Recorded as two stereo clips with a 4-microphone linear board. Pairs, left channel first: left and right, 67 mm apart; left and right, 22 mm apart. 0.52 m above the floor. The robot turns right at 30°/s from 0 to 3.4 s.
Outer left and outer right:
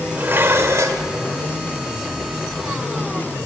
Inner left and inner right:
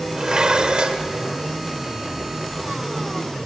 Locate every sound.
0.2 s dishes clattering: 30° right (ahead or behind), 1.2 m; by 1.0 s 55° right (ahead or behind), 1.2 m